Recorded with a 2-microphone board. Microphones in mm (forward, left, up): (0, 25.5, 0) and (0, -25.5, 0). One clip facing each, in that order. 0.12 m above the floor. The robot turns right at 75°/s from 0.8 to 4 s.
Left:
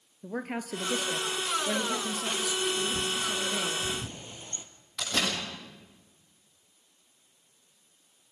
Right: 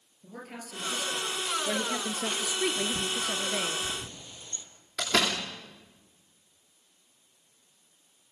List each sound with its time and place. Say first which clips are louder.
0.2 s a woman speaking: left 8 dB; 120° left, 2 m; by 3.8 s 15° right, 2 m
2.8 s a bird: even; 50° right (ahead or behind), 2.5 m; by 4.7 s 30° left (ahead or behind), 2.5 m
5.0 s a door slam: right 3 dB; 85° right, 9 m